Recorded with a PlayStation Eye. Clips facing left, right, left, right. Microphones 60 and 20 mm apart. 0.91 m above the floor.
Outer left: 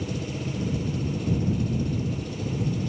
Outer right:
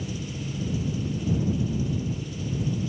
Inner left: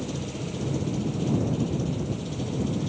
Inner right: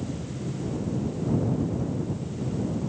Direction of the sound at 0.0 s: 60° left (ahead or behind).